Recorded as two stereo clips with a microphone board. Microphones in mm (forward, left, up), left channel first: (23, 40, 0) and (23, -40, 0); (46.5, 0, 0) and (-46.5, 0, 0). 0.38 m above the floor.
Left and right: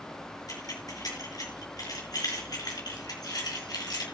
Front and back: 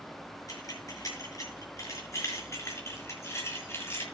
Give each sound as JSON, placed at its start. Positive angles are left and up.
{"t": 0.5, "sound": "keys jangling", "azimuth_deg": 50, "distance_m": 5.0}